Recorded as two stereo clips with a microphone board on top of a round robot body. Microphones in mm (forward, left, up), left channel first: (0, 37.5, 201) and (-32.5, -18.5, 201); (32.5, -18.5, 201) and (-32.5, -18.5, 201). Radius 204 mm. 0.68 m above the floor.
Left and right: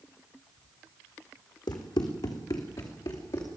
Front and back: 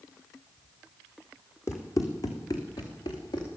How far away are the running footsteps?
About 1.8 m.